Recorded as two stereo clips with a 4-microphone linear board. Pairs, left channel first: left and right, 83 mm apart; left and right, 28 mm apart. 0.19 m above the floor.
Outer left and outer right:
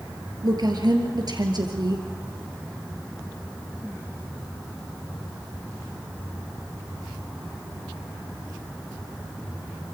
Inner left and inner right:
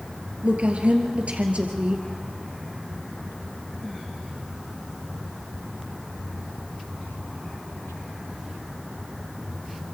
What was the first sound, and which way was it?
A woman speaking, 55° right (ahead or behind).